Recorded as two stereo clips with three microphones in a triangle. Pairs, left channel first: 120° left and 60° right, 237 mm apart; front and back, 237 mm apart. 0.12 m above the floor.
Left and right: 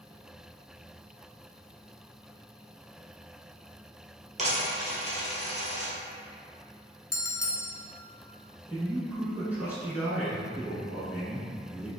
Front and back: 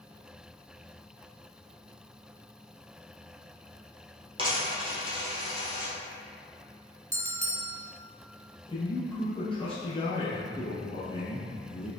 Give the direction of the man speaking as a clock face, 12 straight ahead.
12 o'clock.